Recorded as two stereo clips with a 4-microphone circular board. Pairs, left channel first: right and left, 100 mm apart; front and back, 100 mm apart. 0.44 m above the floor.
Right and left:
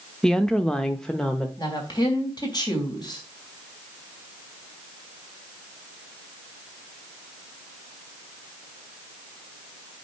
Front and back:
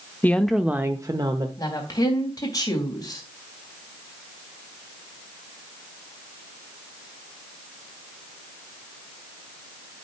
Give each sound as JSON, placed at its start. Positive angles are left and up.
{"t": 0.2, "sound": "a woman speaking", "azimuth_deg": -20, "distance_m": 0.7}
{"t": 1.6, "sound": "a woman speaking", "azimuth_deg": -50, "distance_m": 3.5}